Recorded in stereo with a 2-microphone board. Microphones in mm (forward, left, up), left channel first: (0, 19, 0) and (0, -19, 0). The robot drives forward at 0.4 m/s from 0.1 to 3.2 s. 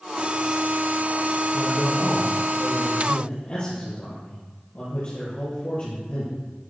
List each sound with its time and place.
1.5 s a man speaking: 45° left (ahead or behind), 3 m; by 6.4 s 40° left (ahead or behind), 3.5 m